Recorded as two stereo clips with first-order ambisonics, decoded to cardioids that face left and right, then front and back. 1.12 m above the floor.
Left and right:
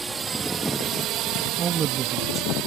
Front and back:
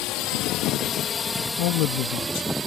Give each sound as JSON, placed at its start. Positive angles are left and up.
{"t": 0.0, "sound": "a drone", "azimuth_deg": -15}
{"t": 1.6, "sound": "a man speaking", "azimuth_deg": -25}